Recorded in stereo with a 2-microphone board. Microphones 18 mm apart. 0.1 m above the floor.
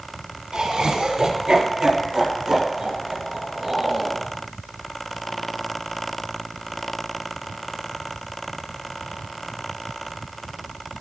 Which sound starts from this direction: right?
Laughter, at 0.5 s.